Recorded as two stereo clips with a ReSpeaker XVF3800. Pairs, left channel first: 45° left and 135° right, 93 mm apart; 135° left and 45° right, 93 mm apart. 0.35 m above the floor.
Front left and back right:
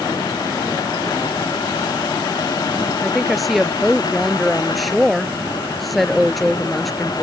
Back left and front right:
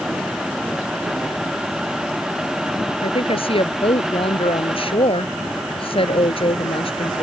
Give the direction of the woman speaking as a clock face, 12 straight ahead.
8 o'clock.